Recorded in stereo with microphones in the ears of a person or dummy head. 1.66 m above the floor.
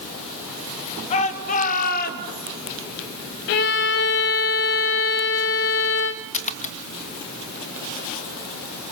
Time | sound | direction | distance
1.1 | a shout | 30° left (ahead or behind) | 3 m
3.5 | a violin | 50° left (ahead or behind) | 1.2 m
6.3 | a splash | 35° left (ahead or behind) | 1.0 m